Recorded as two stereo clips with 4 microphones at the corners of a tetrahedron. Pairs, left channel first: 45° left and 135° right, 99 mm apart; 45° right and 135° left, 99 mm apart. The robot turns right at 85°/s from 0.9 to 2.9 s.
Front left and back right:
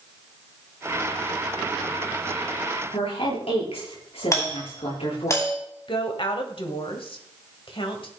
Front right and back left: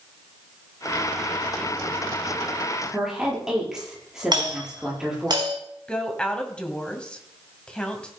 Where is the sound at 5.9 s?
35° left, 2 m.